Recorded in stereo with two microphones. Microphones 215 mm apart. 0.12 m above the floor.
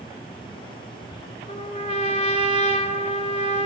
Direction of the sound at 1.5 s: 30° left (ahead or behind).